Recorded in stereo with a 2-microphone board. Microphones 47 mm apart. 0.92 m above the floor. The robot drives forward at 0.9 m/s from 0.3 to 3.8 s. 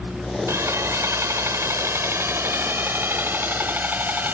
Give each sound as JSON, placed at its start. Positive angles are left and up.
{"t": 0.5, "sound": "sawing", "side_deg": -80}